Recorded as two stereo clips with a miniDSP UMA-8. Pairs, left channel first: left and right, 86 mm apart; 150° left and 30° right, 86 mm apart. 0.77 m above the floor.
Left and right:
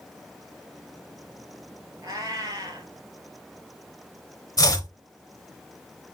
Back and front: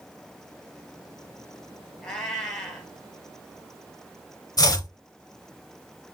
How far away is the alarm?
No alarm in this recording.